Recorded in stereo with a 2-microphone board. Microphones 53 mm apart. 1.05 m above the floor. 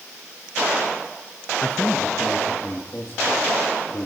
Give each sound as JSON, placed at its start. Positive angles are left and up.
{"t": 1.6, "sound": "a man speaking", "side_deg": 35, "distance_m": 1.1}